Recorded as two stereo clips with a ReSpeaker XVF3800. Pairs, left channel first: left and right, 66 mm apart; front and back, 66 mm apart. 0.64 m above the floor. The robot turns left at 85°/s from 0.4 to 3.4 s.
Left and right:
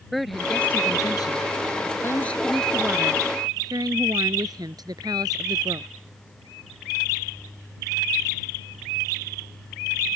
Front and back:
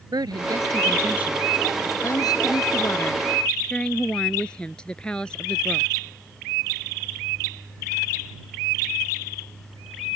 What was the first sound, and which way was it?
A woman speaking, straight behind.